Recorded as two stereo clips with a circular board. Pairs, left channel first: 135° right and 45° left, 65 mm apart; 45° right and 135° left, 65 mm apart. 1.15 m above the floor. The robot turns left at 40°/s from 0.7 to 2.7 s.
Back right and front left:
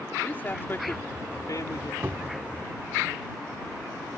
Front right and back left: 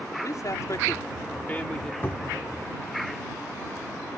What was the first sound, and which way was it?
A man speaking, 75° right.